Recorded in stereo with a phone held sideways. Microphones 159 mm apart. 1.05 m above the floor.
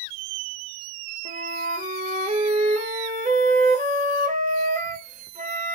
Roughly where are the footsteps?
I don't hear footsteps.